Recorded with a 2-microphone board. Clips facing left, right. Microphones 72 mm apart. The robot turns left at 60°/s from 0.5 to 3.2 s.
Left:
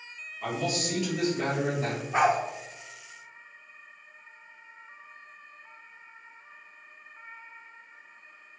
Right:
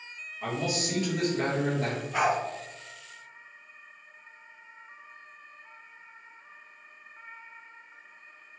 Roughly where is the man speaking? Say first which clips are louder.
Left 1 dB; ahead.